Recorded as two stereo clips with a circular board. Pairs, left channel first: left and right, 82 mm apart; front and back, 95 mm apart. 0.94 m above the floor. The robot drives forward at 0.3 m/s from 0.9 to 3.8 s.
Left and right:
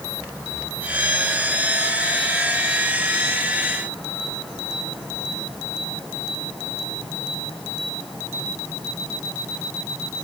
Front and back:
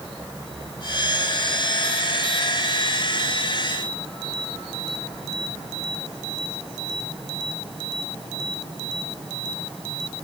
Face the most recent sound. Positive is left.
No sound to turn to.